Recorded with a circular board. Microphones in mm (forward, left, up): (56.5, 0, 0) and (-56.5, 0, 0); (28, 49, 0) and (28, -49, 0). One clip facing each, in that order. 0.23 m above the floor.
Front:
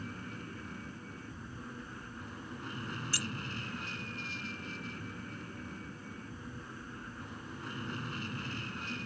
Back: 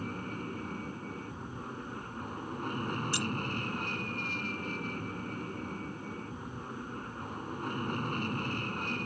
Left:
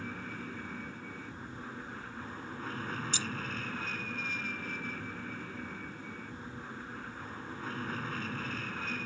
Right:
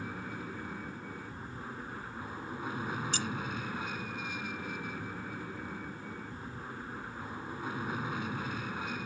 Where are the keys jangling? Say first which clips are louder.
Back 6 dB, right 2 dB; 115° right.